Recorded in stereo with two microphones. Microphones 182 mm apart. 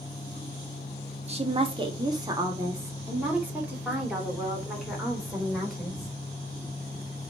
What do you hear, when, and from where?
1.3 s a woman speaking: 35° right (ahead or behind), 1.4 m; by 6.1 s centre (ahead or behind), 4 m